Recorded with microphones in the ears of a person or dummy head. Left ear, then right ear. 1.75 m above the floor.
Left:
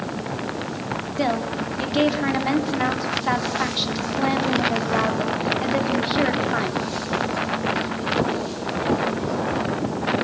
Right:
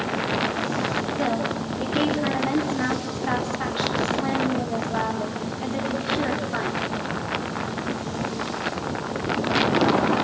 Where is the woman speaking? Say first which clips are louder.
Left 1 dB; 30° left (ahead or behind), 4 m.